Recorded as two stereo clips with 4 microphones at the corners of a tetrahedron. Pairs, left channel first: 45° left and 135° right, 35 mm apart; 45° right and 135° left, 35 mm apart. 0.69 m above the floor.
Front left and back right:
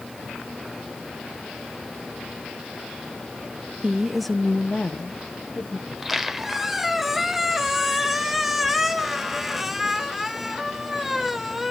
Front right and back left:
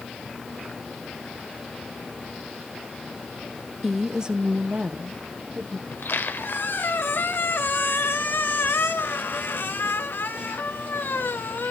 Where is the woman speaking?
135° right, 0.6 m; by 5.8 s 85° left, 1.5 m.